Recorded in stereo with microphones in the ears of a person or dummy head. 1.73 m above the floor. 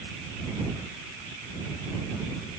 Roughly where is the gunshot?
I don't hear a gunshot.